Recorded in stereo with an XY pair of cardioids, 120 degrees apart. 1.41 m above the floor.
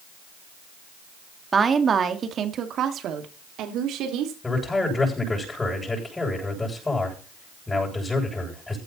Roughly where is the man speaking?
Ahead.